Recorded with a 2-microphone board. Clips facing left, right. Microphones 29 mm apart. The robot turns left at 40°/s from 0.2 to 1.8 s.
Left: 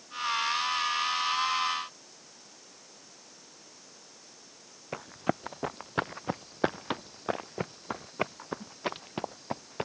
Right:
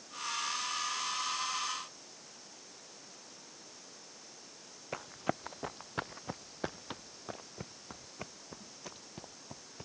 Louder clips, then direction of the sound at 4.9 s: Left 5 dB; centre (ahead or behind).